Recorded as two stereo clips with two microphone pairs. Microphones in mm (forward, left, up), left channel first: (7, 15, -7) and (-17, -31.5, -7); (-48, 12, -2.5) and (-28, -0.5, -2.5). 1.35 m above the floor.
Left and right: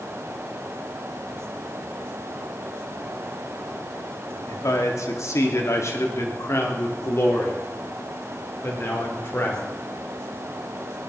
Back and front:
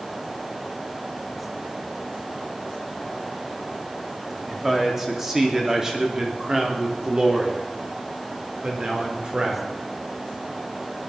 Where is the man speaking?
50° left, 2.5 m; by 9.7 s 15° left, 4.5 m.